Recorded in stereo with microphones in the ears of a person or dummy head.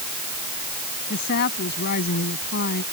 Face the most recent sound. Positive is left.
turn(degrees=60)  # may be behind; listen again after turning